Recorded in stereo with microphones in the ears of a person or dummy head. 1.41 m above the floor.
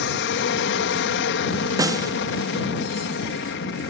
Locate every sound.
0.0 s an aircraft: 60° left (ahead or behind)
1.8 s a snare drum: 15° right (ahead or behind)